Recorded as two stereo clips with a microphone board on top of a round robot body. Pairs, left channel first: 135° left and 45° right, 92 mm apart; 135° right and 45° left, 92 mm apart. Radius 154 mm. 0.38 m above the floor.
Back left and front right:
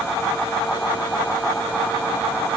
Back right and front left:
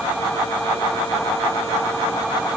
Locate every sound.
Only background noise.